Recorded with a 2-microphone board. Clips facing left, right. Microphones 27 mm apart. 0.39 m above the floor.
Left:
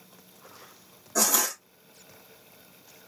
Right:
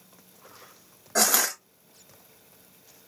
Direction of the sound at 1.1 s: 50° right (ahead or behind).